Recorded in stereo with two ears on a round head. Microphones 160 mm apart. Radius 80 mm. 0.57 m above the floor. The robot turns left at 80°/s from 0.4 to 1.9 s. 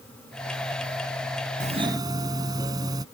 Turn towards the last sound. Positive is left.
turn(degrees=-25)  # may be behind; listen again after turning